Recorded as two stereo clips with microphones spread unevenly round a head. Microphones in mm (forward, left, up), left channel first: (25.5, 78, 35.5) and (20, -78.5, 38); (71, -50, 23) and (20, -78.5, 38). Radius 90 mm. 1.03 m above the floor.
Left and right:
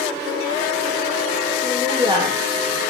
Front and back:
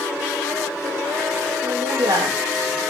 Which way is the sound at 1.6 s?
155° right.